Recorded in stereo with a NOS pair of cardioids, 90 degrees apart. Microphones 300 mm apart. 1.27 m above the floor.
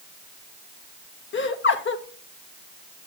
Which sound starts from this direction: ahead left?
Laughter, at 1.3 s.